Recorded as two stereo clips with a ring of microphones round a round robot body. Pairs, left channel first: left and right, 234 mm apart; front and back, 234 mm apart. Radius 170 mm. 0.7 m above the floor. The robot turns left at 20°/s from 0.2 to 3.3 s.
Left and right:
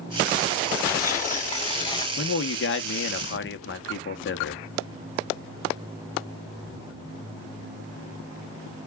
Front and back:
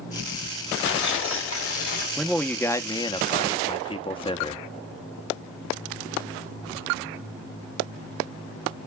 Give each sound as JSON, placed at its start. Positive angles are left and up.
{"t": 0.8, "sound": "tearing paper", "azimuth_deg": 45, "distance_m": 2.0}
{"t": 2.2, "sound": "a man speaking", "azimuth_deg": 90, "distance_m": 0.9}